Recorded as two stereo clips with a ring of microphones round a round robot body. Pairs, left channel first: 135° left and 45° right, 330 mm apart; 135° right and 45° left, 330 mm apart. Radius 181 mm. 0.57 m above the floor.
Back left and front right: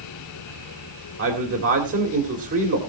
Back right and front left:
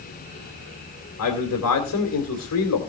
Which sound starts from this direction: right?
A man speaking, at 1.2 s.